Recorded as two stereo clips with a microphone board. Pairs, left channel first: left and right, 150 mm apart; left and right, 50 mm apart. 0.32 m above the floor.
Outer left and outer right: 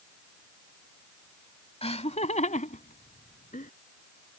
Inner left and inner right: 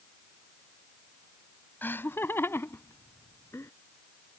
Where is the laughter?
45° left (ahead or behind); by 3.7 s 60° left (ahead or behind).